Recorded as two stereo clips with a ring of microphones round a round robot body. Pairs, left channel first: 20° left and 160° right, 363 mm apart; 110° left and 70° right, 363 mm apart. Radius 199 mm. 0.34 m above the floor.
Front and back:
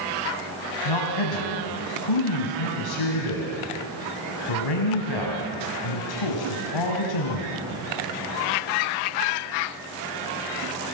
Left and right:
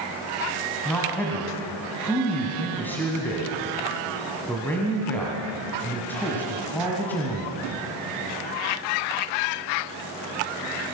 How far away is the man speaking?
About 2.5 m.